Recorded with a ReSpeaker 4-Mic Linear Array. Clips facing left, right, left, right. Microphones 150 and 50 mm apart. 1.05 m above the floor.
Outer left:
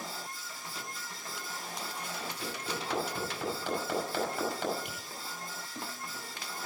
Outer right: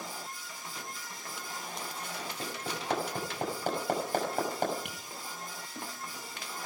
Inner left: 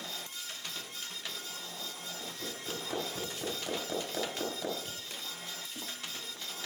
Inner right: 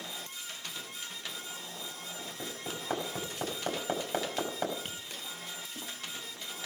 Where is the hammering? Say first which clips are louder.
Outer right 1 dB, inner right 2 dB; 45° right (ahead or behind), 5.5 m.